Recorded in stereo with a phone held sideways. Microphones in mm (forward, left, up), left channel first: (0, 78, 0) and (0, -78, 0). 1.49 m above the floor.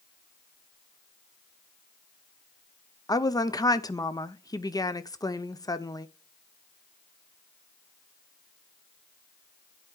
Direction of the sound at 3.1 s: 25° left (ahead or behind).